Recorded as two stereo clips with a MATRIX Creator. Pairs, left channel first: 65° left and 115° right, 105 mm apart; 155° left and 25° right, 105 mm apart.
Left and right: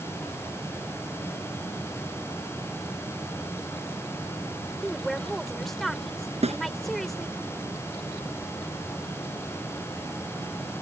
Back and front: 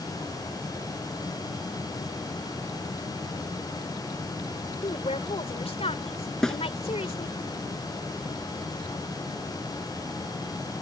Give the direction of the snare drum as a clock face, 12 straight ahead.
4 o'clock.